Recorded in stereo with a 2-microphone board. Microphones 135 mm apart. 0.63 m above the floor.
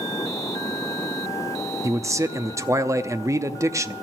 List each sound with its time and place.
1.8 s a man speaking: 20° right (ahead or behind), 0.6 m